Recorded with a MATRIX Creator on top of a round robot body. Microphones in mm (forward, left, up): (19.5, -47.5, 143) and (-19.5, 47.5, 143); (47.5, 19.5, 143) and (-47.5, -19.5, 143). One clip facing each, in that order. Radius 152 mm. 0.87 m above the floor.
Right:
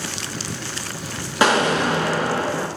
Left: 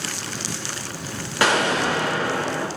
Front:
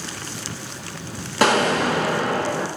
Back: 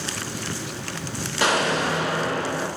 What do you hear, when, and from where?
1.4 s an explosion: 5° right, 0.6 m